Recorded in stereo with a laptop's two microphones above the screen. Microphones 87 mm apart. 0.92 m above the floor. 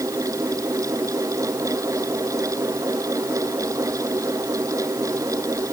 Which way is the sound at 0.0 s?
40° right (ahead or behind).